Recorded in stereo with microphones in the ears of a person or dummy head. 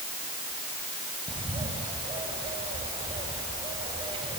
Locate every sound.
1.3 s a bird: 30° right (ahead or behind), 4.5 m